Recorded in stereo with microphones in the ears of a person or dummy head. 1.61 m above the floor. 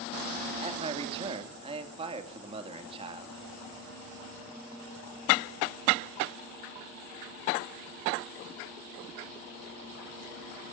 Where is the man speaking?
25° right (ahead or behind), 3 m.